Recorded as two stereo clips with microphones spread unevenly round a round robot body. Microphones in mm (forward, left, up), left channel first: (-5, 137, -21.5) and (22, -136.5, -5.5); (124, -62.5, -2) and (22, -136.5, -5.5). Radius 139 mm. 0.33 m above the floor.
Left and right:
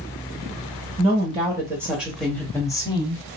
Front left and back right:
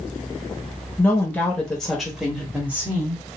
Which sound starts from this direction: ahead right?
A woman speaking, at 1.0 s.